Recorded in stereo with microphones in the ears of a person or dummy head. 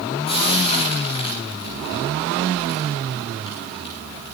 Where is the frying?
35° left (ahead or behind), 10 m.